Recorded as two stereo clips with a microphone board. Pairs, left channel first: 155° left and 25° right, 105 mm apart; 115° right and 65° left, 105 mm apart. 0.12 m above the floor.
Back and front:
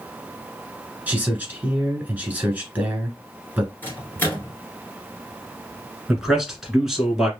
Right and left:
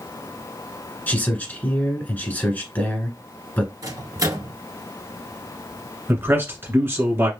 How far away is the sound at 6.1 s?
About 1.5 m.